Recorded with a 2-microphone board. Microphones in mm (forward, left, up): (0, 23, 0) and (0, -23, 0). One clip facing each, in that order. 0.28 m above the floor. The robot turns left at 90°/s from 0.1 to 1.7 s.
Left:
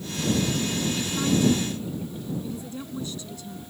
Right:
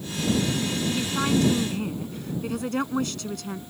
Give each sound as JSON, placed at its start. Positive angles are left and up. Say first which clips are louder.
{"t": 0.9, "sound": "a woman speaking", "louder": "right 2 dB", "azimuth_deg": -15}